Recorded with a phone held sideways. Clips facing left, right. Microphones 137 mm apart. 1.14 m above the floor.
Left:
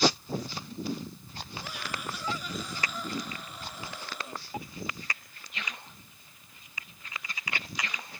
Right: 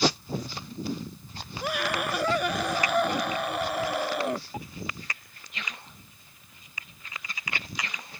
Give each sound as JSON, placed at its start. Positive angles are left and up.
{"t": 1.6, "sound": "a scream", "side_deg": -70}